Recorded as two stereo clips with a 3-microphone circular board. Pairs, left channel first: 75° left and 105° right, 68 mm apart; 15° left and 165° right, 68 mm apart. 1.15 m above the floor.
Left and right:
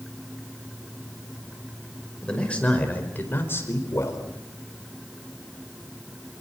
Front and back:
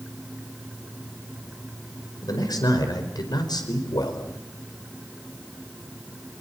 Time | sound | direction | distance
2.2 | a man speaking | straight ahead | 5 m